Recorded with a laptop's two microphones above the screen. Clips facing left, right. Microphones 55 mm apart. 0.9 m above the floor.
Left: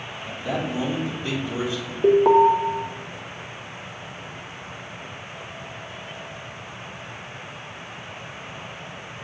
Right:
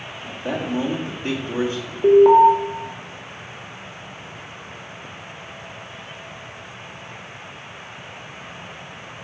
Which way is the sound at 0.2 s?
45° right (ahead or behind).